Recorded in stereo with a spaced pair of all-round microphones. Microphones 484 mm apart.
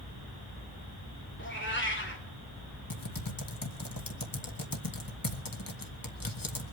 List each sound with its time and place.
1.4 s a cat meowing: 25° left (ahead or behind), 2.5 m
2.9 s typing on a keyboard: 45° left (ahead or behind), 1.6 m